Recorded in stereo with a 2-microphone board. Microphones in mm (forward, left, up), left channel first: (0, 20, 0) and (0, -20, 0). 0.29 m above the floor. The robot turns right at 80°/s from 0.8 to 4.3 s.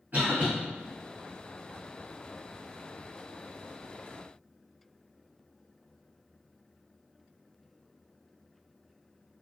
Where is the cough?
45° right (ahead or behind), 1.7 m.